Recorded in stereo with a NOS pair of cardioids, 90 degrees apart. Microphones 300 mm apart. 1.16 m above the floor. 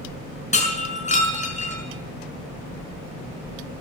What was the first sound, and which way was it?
Breaking glass, 25° left.